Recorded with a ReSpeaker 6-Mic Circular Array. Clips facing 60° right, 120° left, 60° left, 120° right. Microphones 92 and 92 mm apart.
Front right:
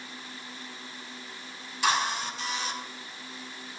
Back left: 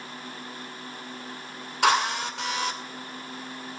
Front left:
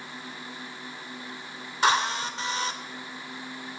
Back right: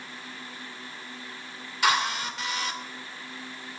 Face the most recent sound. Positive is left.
turn(degrees=120)